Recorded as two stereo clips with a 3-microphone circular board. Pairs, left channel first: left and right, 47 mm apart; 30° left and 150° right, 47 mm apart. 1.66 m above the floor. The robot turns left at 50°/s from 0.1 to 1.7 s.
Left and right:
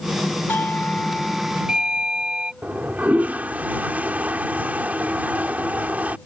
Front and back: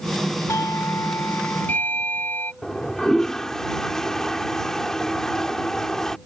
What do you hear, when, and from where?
0.5 s a doorbell: 45° left; by 2.5 s 15° right
2.6 s a toilet flushing: 45° right